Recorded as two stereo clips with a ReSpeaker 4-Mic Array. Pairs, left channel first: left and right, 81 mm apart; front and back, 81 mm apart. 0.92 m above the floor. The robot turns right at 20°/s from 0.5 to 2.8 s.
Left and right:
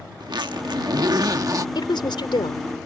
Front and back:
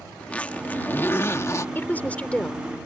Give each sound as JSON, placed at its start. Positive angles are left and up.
{"t": 0.2, "sound": "a zipper", "azimuth_deg": -70}
{"t": 1.8, "sound": "a woman speaking", "azimuth_deg": 65}